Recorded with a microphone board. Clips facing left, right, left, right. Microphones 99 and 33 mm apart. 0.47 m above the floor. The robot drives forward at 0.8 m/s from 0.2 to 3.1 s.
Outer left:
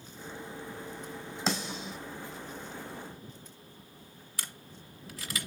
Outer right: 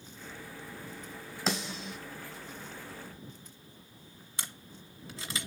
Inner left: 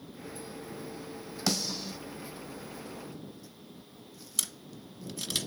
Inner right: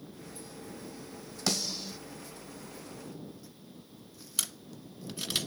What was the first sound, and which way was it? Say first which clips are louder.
A snare drum: even, inner left 1 dB; centre (ahead or behind).